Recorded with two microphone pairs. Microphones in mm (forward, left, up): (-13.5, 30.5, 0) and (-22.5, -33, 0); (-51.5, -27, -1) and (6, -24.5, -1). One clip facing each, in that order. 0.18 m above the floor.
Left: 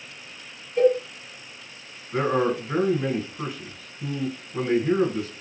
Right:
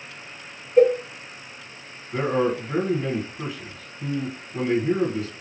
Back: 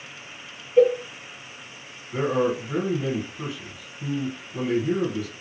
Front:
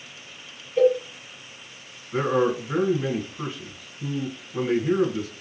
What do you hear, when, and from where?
0.8 s a cowbell: 125° right, 0.7 m
2.1 s a man speaking: 40° left, 1.7 m